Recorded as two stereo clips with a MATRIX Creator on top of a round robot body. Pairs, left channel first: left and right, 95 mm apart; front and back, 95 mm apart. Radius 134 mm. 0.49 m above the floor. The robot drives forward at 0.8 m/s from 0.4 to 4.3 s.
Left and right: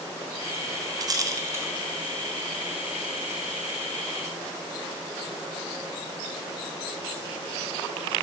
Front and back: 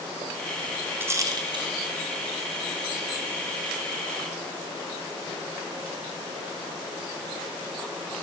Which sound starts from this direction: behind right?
A rattle, at 1.0 s.